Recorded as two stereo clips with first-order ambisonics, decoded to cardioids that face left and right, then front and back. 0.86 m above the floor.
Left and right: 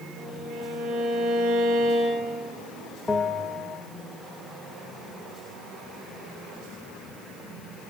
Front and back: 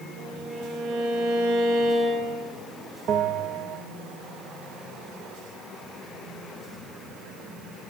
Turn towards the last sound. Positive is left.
turn(degrees=160)